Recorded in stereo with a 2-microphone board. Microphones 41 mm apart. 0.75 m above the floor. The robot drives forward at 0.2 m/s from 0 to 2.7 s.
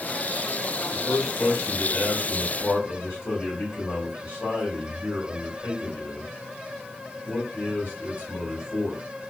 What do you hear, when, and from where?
0.9 s a man speaking: 60° left (ahead or behind), 1.4 m; by 9.0 s 65° left (ahead or behind), 1.3 m